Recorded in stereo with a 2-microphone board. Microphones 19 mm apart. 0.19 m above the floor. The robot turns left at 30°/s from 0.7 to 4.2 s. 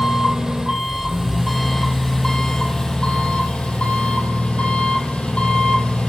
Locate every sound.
0.0 s an engine running: 140° right, 6.5 m; by 6.1 s 115° left, 6.5 m